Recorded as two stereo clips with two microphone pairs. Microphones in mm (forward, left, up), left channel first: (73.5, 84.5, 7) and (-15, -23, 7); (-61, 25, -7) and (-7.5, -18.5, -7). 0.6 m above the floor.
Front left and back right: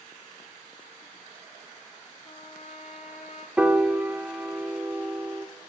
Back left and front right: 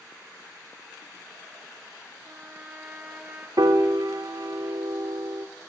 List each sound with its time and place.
2.2 s a trumpet: 30° left, 0.8 m
3.6 s a piano: 45° right, 0.7 m